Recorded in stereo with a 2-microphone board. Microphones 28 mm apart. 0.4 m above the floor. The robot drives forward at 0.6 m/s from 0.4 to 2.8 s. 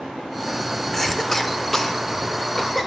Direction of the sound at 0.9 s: 10° left (ahead or behind).